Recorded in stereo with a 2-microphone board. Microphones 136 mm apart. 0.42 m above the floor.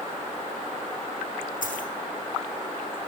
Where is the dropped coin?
90° left, 7 m.